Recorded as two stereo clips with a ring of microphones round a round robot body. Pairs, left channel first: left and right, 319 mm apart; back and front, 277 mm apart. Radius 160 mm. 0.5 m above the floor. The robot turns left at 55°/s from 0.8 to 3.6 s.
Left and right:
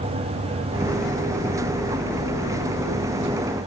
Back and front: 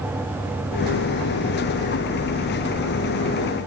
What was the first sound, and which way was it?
Only background noise.